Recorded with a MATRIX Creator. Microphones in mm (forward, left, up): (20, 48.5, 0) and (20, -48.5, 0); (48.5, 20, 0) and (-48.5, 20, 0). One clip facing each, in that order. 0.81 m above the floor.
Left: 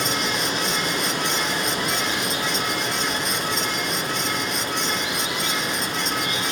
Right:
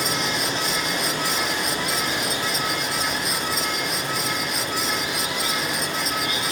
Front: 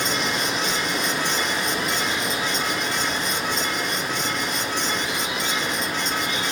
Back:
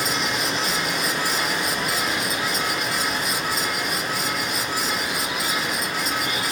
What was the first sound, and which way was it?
Running water, 90° left.